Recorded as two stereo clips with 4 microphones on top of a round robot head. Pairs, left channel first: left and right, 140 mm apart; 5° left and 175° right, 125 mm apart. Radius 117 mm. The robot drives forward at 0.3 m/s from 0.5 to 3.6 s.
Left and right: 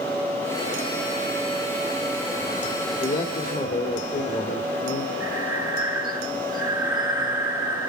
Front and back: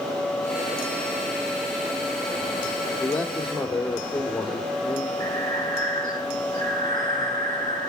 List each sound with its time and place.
3.0 s a man speaking: 90° left, 2.5 m; by 5.1 s 95° left, 2.5 m
5.2 s breathing: 170° right, 6 m